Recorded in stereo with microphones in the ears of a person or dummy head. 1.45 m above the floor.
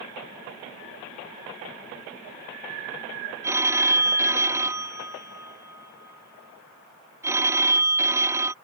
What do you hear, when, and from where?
3.4 s a phone ringing: 15° right (ahead or behind)